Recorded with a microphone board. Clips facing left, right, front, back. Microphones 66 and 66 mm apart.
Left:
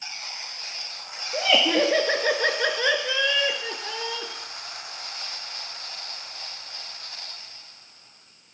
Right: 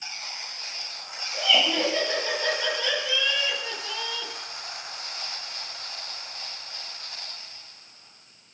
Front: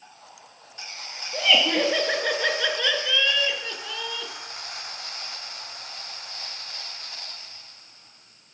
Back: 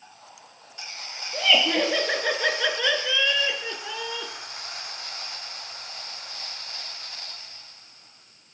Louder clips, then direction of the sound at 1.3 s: Left 3 dB, even; 80° left.